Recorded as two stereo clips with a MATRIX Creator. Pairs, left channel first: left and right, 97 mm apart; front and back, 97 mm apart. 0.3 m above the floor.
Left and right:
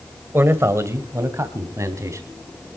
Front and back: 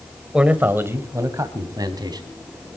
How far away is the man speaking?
About 1.5 m.